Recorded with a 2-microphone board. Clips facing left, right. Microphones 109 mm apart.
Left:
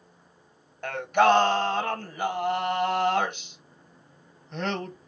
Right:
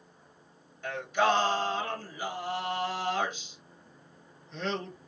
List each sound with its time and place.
0.8 s singing: 65° left (ahead or behind), 0.8 m